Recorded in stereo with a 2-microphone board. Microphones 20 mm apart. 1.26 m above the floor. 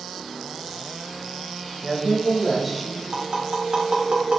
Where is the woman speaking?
30° right (ahead or behind), 1.2 m; by 3.0 s 5° right (ahead or behind), 1.7 m.